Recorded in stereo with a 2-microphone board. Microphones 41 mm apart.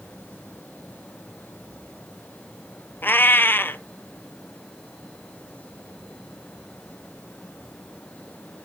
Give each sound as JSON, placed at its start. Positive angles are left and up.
{"t": 3.0, "sound": "a cat meowing", "side_deg": 60, "distance_m": 0.5}